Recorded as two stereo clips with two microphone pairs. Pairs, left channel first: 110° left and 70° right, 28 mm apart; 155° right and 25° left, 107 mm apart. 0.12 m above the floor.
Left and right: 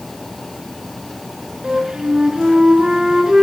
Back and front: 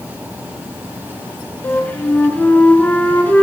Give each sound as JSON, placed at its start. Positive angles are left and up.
{"t": 1.6, "sound": "a flute", "azimuth_deg": -95, "distance_m": 1.1}